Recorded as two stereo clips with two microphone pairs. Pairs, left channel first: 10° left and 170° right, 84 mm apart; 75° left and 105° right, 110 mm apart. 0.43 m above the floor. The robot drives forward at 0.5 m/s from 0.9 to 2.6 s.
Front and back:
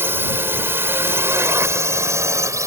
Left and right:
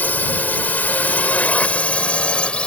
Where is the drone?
145° left; by 2.7 s 150° left.